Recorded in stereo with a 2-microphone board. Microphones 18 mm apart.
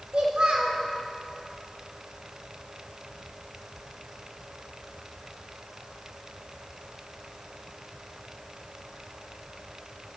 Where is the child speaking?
70° right (ahead or behind), 6 m.